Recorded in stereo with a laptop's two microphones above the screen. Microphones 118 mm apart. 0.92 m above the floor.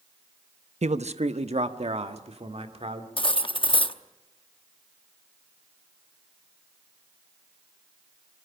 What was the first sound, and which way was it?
A man speaking, 70° right (ahead or behind).